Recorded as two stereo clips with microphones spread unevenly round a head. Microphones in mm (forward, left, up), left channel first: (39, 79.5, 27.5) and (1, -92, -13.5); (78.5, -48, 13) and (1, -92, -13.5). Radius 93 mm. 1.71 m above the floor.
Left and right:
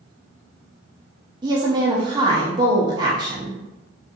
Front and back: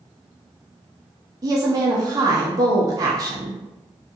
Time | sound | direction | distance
1.4 | a woman speaking | 170° right | 0.6 m